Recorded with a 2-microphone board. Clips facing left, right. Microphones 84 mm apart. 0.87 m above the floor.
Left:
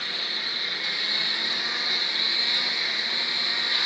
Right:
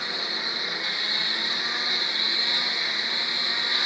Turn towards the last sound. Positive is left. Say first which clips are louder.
# right 3 dB
turn(degrees=-20)  # may be behind; listen again after turning